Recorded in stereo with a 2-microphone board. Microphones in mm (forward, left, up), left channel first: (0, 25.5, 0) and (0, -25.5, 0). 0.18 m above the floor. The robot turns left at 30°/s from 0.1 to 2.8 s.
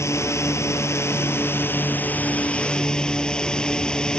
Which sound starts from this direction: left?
A drone, at 0.0 s.